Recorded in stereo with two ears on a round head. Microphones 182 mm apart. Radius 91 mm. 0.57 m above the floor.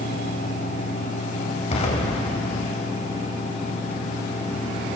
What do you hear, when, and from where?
1.7 s an explosion: 30° left (ahead or behind), 3 m